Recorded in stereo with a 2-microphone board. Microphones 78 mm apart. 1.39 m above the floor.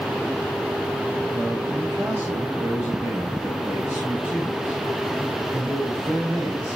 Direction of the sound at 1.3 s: 30° right (ahead or behind).